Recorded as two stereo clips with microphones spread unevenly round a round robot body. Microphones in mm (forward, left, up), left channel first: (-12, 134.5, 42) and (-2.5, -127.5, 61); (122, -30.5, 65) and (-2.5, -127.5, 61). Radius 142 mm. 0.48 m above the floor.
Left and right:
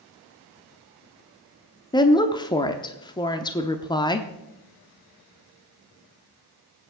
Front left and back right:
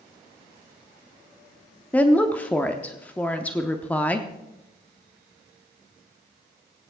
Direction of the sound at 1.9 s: 105° left.